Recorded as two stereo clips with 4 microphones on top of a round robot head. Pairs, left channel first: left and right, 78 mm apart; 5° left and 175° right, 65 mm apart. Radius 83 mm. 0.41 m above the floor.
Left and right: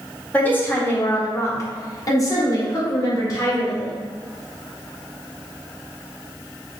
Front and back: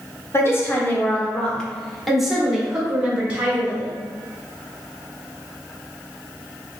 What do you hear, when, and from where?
0.3 s a woman speaking: 30° left, 1.4 m; by 3.9 s 125° left, 2 m